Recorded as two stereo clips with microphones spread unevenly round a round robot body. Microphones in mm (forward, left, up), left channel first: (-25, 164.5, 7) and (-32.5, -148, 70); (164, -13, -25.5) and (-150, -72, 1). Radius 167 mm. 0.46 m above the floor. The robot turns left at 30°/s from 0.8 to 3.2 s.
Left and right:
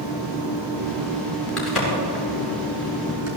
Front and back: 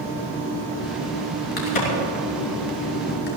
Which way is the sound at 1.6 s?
5° left.